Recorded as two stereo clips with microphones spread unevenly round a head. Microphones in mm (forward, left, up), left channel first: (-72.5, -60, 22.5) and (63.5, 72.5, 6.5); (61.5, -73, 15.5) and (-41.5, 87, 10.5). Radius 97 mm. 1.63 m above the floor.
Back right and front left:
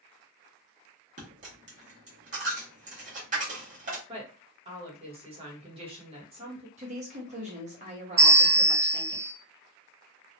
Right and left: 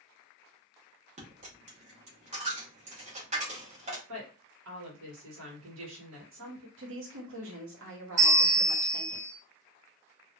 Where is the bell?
105° left, 1.8 m.